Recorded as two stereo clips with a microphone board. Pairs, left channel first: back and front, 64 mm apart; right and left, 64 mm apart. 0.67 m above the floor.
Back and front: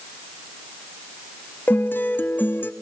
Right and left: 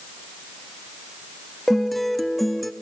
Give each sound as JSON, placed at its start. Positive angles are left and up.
{"t": 1.7, "sound": "a guitar", "azimuth_deg": -175, "distance_m": 0.8}